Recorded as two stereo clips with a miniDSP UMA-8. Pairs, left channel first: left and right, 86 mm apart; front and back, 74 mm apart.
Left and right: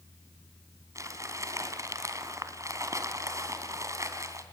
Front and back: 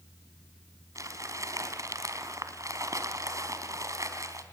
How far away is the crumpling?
About 3 m.